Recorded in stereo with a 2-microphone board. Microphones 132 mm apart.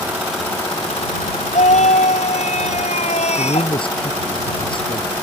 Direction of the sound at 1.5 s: 60° left (ahead or behind).